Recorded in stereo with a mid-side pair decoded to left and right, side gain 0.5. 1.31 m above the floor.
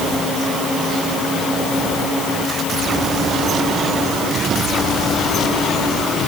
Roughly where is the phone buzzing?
I don't hear a phone buzzing.